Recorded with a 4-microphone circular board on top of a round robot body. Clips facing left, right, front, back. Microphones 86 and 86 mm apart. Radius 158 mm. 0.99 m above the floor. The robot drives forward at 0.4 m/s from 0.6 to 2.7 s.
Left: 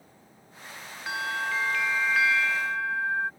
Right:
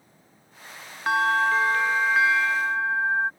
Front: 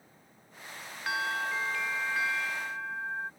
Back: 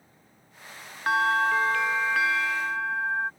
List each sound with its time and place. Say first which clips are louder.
1.1 s a bell: right 9 dB, back 9 dB; 130° right; by 3.3 s 155° right